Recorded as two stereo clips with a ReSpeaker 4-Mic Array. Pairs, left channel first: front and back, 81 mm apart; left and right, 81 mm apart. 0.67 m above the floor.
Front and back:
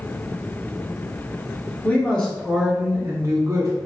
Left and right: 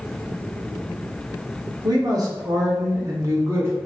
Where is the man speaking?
65° right, 0.9 m; by 3.7 s 145° right, 0.9 m.